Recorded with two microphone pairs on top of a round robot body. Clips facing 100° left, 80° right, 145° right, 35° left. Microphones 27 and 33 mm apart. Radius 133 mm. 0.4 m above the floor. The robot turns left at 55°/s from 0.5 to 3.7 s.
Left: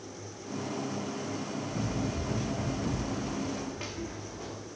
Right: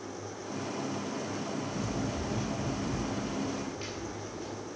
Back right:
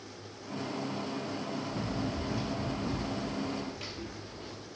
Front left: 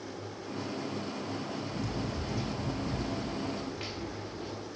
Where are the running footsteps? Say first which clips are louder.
Left 1 dB, back right 1 dB; 160° left, 2.5 m; by 4.6 s 115° left, 4 m.